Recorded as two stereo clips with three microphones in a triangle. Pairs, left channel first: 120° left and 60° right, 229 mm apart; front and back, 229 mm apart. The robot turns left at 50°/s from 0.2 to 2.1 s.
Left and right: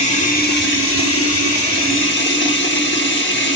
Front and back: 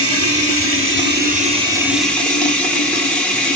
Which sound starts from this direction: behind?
Running water, at 0.0 s.